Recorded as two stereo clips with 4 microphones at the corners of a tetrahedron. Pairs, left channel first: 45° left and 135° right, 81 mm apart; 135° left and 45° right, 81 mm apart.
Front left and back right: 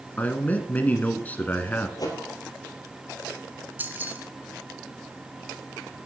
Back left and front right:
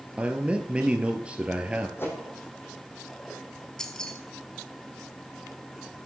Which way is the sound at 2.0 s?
80° left.